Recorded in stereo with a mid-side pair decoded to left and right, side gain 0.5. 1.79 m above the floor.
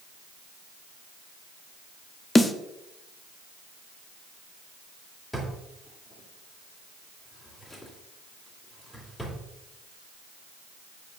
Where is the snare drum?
20° left, 0.7 m.